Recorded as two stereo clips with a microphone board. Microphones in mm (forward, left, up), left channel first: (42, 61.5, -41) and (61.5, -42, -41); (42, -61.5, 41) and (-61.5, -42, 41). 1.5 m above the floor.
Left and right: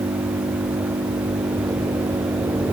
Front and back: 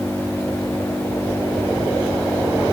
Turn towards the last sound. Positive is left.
turn(degrees=-100)